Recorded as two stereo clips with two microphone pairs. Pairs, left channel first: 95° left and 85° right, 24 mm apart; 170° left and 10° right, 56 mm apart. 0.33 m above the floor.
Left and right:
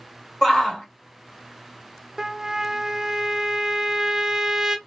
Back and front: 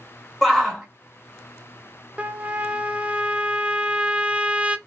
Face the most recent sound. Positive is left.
turn(degrees=-35)